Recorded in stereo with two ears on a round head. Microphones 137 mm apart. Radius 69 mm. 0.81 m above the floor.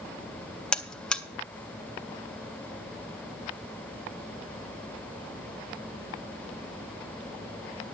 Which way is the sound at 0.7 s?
5° left (ahead or behind).